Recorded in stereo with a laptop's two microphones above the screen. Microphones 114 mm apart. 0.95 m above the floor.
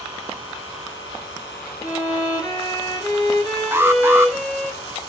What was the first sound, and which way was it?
A violin, 25° left (ahead or behind).